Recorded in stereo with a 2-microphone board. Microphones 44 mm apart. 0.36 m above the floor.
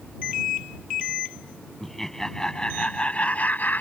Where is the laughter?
5° left (ahead or behind); by 3.8 s 45° left (ahead or behind).